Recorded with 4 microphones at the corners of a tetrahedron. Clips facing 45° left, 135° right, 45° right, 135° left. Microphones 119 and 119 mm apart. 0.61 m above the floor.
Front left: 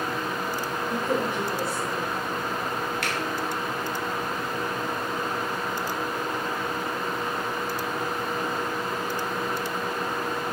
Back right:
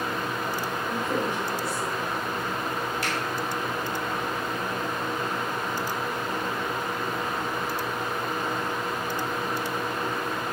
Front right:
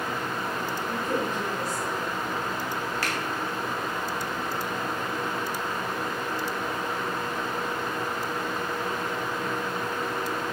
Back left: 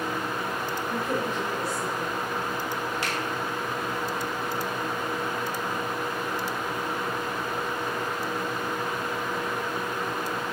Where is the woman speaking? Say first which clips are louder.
Front left 2 dB, even; 65° left, 2.5 m.